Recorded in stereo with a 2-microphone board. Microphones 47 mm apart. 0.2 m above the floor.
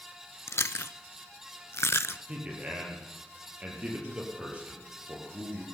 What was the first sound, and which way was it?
Chewing, 75° left (ahead or behind).